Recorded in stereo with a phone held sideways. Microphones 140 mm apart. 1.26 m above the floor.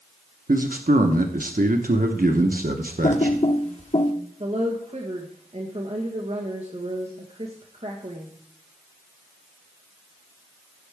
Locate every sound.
0.5 s a man speaking: 80° right, 0.9 m
3.0 s typing on a keyboard: 50° left (ahead or behind), 1.2 m
4.4 s a woman speaking: 50° right (ahead or behind), 1.3 m